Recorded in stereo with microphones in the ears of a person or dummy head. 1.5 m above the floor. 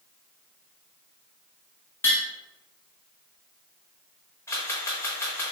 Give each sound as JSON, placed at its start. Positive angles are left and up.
{"t": 2.0, "sound": "tapping", "side_deg": 5, "distance_m": 1.3}
{"t": 4.5, "sound": "a camera shutter", "side_deg": 10, "distance_m": 1.1}